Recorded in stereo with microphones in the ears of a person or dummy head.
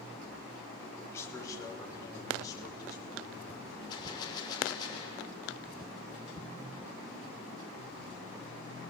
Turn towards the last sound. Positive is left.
turn(degrees=25)  # may be behind; listen again after turning